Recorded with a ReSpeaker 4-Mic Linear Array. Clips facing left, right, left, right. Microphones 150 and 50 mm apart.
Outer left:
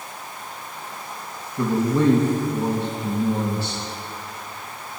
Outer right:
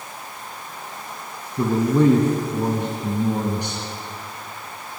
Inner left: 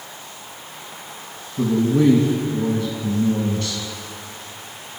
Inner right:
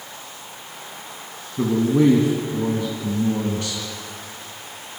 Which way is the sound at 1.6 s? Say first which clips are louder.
Outer right 2 dB, even; 15° right (ahead or behind).